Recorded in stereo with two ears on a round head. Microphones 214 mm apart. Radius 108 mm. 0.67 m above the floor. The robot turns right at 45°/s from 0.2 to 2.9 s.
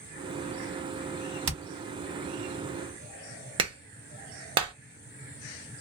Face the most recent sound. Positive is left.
turn(degrees=-25)  # may be behind; listen again after turning